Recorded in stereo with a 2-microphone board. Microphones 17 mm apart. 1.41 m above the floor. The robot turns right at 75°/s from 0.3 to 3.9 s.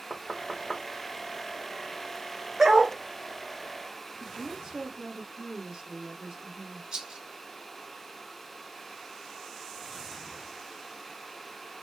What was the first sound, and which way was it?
Knocking, 5° left (ahead or behind).